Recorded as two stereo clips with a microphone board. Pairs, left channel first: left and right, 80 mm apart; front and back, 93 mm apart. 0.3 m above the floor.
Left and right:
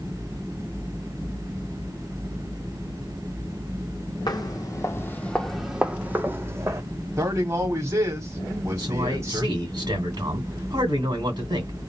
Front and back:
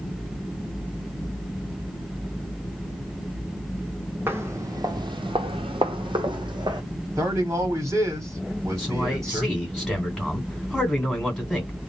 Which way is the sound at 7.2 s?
135° right.